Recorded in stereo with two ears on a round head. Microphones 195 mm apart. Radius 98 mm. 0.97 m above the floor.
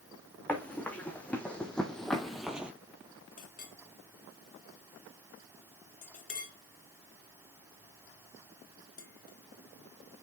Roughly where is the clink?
Left.